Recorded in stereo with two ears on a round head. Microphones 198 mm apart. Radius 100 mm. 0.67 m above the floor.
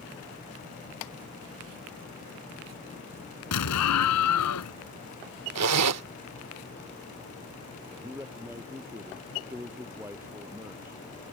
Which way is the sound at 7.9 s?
10° right (ahead or behind).